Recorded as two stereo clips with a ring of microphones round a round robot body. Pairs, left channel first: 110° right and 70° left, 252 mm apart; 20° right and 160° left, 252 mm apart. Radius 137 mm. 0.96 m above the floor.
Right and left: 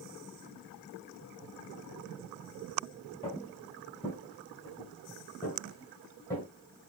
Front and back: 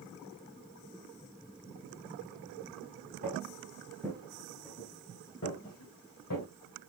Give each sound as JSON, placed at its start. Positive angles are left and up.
{"t": 3.2, "sound": "footsteps", "azimuth_deg": -165, "distance_m": 1.1}